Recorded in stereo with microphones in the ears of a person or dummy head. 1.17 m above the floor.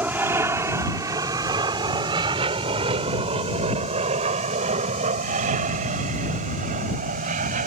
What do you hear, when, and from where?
0.0 s an aircraft: 10° right (ahead or behind); by 7.7 s 40° right (ahead or behind)